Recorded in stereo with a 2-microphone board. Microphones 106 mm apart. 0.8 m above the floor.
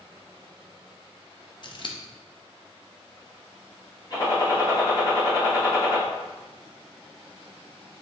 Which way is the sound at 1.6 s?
50° left (ahead or behind).